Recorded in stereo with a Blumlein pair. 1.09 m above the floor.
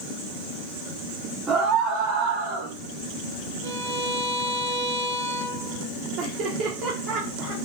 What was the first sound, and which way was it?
A scream, 25° right.